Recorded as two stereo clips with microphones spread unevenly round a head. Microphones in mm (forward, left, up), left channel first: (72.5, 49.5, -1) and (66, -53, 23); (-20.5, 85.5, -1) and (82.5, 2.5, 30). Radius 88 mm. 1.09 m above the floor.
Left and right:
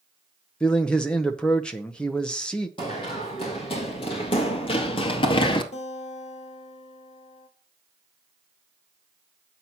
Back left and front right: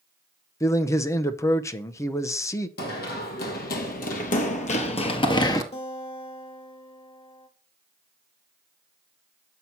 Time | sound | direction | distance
0.6 | a man speaking | 140° left | 0.7 m
2.8 | running footsteps | 155° left | 2.5 m
5.7 | a guitar | 105° left | 1.8 m